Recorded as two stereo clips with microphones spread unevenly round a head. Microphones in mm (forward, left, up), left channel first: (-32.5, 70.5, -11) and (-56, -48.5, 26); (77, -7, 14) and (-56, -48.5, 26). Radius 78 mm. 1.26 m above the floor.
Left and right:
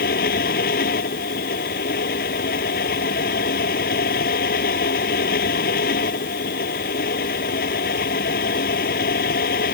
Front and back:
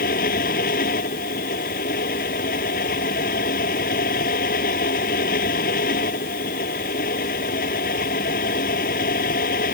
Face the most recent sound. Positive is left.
turn(degrees=55)